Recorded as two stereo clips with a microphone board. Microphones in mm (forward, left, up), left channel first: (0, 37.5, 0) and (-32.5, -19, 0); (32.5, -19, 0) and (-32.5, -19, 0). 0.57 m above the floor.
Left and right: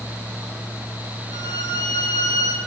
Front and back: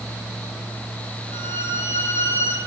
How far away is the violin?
About 8.5 m.